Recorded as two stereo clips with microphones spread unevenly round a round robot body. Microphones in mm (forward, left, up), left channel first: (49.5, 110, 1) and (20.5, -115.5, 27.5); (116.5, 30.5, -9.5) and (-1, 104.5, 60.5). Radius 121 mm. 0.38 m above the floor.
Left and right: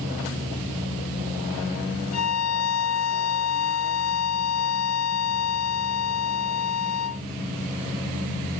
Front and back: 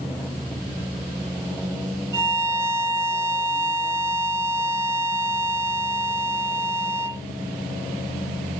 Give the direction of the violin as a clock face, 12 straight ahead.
10 o'clock.